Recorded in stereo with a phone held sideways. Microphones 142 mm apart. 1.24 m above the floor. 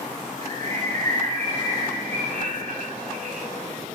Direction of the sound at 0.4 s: 60° right (ahead or behind).